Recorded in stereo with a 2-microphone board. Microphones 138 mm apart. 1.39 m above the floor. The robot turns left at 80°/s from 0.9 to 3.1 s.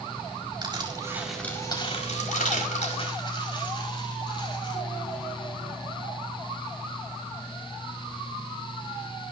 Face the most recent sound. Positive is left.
turn(degrees=40)  # may be behind; listen again after turning